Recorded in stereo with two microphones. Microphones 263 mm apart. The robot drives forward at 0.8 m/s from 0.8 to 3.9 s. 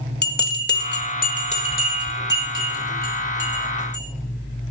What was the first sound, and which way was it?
A bell, 40° left (ahead or behind).